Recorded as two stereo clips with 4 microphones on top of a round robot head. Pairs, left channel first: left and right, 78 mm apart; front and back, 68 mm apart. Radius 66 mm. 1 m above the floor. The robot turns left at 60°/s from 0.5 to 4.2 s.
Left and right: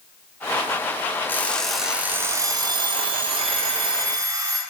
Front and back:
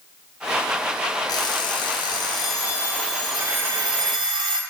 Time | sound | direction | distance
1.3 | an alarm clock | 25° left | 1.3 m